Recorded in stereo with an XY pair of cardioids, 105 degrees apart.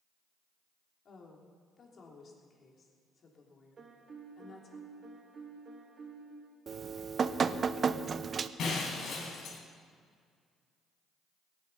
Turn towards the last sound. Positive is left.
turn(degrees=70)